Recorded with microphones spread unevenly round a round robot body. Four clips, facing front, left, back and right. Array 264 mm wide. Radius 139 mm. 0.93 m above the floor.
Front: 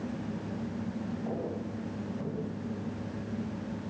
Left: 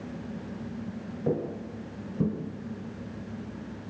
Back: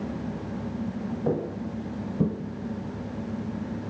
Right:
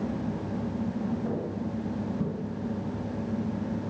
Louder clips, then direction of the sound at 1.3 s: Left 1 dB, back 6 dB; 145° left.